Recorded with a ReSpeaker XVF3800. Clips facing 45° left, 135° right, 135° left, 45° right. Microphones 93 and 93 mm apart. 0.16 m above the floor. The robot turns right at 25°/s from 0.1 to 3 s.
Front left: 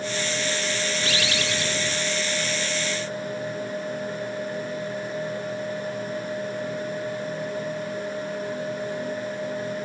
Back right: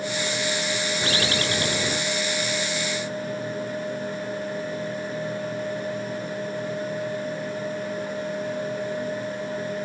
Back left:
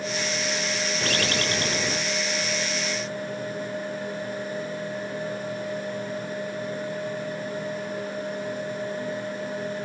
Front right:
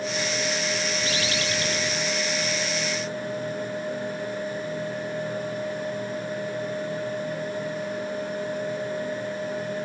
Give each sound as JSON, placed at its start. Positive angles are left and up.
{"t": 1.0, "sound": "a bird", "azimuth_deg": 165}